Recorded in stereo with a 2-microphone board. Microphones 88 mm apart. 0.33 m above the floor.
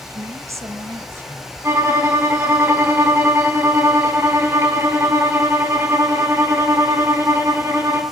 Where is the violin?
30° right (ahead or behind), 3.5 m.